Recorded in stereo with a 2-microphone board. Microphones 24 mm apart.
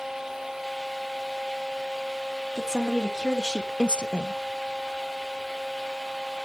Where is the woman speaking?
20° left (ahead or behind), 2 m; by 4.3 s 50° left (ahead or behind), 1.1 m.